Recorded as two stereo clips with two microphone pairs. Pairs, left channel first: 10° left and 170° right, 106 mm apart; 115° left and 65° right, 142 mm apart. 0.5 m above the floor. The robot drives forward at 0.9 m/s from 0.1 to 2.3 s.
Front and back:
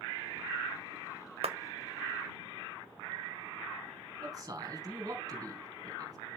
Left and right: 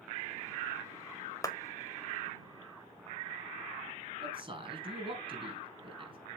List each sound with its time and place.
1.4 s a clap: straight behind, 1.7 m
4.2 s a man speaking: 115° right, 4.5 m